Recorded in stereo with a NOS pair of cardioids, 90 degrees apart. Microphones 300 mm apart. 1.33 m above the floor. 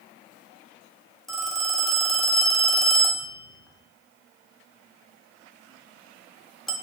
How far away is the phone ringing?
About 0.5 m.